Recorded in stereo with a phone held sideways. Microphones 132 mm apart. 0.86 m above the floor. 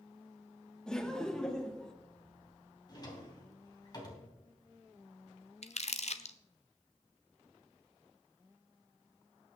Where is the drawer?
30° left (ahead or behind), 3 m.